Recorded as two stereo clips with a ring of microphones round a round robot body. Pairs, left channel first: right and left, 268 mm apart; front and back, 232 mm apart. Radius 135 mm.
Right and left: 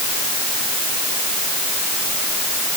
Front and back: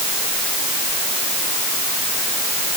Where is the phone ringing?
No phone ringing in this recording.